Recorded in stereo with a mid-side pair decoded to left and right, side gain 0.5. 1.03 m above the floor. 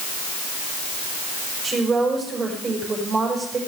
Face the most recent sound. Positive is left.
turn(degrees=-30)